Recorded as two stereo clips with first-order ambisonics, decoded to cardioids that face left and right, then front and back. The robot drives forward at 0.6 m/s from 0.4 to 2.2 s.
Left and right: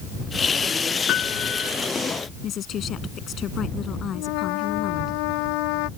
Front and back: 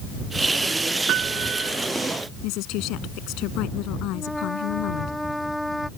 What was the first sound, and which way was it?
A piano, 135° left.